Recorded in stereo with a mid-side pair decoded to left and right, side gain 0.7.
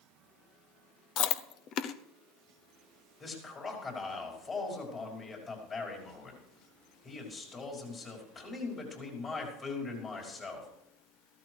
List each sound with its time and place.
1.2 s chewing: 50° left, 0.8 m
3.2 s a man speaking: 30° left, 5.5 m